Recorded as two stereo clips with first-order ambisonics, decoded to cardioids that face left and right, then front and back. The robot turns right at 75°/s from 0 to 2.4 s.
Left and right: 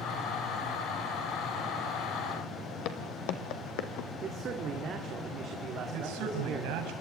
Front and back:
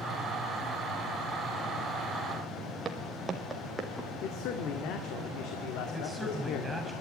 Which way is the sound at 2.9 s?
110° left.